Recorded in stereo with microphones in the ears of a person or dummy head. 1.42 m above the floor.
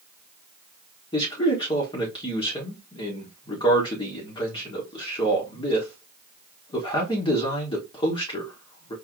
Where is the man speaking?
30° left (ahead or behind), 2 m.